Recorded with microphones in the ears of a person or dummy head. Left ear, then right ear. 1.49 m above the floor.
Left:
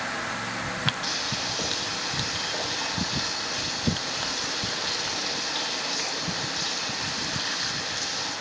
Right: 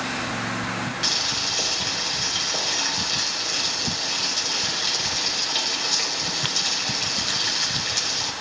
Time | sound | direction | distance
1.0 | boiling | 25° right (ahead or behind) | 6 m